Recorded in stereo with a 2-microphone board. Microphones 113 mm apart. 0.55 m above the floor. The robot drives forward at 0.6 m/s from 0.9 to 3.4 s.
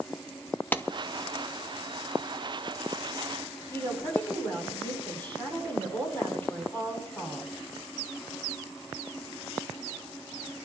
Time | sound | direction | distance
0.7 | a clap | 15° left (ahead or behind) | 0.5 m
3.7 | a woman speaking | 20° left (ahead or behind) | 7.5 m